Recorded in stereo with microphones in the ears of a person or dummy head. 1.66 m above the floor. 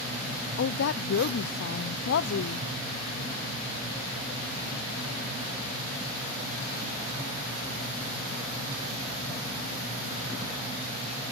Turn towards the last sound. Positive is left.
turn(degrees=70)  # may be behind; listen again after turning